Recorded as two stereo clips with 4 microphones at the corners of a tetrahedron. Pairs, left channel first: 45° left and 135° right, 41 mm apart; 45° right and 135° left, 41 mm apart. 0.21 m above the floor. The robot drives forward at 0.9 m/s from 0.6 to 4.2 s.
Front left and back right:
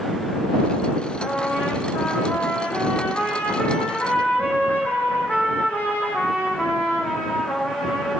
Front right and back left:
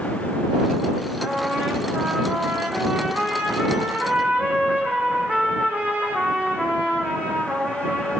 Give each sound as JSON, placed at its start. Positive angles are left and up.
{"t": 1.2, "sound": "a trumpet", "azimuth_deg": 65, "distance_m": 9.5}